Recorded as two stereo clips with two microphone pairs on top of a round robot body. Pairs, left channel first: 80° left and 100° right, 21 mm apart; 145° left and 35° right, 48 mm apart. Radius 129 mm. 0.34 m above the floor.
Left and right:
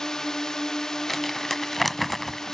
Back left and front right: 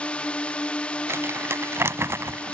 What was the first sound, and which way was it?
A drone, 105° left.